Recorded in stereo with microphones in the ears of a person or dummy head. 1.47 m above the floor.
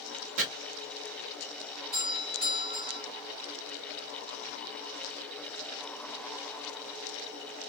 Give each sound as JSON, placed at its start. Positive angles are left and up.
{"t": 0.4, "sound": "chopping", "side_deg": -70, "distance_m": 1.8}
{"t": 1.9, "sound": "a doorbell", "side_deg": -45, "distance_m": 1.4}